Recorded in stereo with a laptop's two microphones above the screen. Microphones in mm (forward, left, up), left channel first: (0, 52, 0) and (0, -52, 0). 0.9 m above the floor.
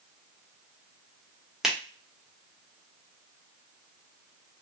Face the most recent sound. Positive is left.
turn(degrees=-5)  # may be behind; listen again after turning